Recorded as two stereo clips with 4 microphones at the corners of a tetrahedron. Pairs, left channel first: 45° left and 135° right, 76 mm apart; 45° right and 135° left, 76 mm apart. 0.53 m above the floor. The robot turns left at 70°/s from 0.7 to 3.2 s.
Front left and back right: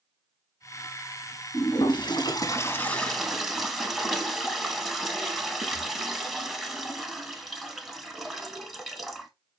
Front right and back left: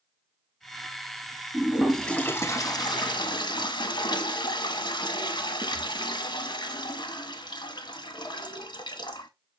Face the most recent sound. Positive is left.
turn(degrees=-45)